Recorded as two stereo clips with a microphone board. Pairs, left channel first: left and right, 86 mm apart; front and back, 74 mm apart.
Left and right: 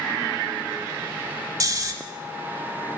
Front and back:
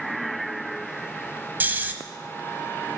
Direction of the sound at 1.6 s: 120° right.